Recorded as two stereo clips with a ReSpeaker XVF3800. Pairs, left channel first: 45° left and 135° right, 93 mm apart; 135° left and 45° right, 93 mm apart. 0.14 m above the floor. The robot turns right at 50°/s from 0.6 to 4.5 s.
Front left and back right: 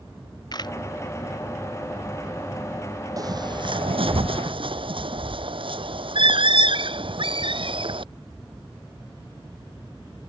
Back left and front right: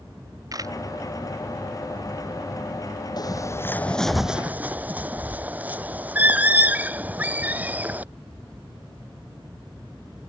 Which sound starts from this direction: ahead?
A camera shutter, at 0.5 s.